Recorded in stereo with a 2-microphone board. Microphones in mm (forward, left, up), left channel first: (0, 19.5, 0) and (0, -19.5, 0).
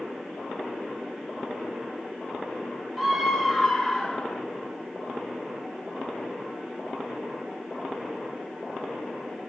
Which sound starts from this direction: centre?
A scream, at 3.0 s.